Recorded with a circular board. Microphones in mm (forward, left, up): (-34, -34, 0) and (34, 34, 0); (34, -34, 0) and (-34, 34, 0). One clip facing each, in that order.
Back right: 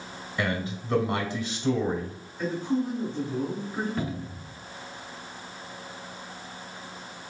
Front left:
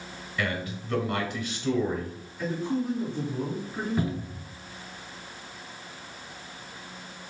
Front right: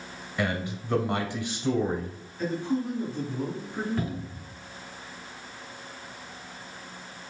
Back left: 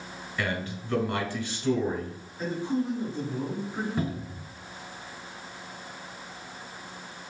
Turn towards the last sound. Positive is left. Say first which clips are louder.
# front left 2 dB, back left 1 dB
turn(degrees=115)